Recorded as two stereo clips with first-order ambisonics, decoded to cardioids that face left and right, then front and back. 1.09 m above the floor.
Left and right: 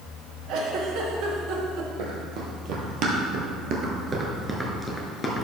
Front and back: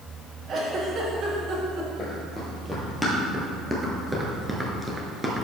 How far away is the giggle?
About 1.2 m.